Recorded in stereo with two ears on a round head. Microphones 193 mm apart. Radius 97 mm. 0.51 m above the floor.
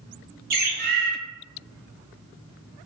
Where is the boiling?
I don't hear boiling.